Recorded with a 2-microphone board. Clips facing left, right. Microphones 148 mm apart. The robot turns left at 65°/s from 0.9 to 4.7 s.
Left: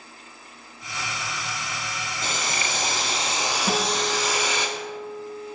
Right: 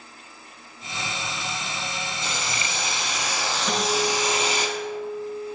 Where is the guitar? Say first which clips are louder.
Right 2 dB; 135° left, 0.8 m; by 5.6 s 70° left, 0.8 m.